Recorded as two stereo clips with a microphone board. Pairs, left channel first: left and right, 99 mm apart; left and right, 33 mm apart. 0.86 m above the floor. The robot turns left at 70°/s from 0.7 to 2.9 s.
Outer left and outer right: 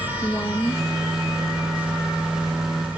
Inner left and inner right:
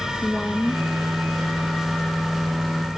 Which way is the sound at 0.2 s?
25° left (ahead or behind).